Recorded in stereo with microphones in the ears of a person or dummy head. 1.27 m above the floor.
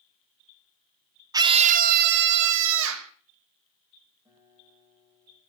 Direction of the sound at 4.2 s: 15° right (ahead or behind).